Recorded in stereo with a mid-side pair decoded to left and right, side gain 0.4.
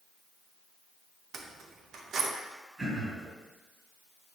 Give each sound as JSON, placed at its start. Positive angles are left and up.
{"t": 1.3, "sound": "keys jangling", "azimuth_deg": -65, "distance_m": 0.6}
{"t": 2.8, "sound": "throat clearing", "azimuth_deg": -45, "distance_m": 2.0}